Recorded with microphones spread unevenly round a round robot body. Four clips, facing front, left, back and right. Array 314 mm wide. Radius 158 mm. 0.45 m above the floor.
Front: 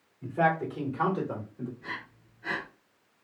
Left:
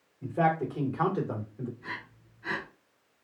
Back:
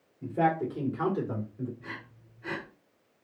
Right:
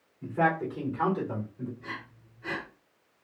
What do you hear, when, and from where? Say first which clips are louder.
0.2 s a man speaking: even, even; 150° left, 1.6 m; by 1.7 s 90° left, 1.7 m
1.8 s breathing: even, front 3 dB; 130° right, 2.5 m